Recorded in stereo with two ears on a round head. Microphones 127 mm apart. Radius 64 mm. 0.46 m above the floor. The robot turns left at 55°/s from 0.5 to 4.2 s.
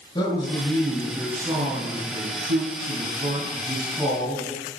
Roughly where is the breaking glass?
I don't hear breaking glass.